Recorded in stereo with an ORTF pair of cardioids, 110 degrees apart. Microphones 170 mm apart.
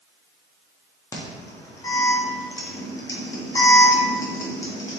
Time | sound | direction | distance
1.1 | an alarm | 20° left | 1.2 m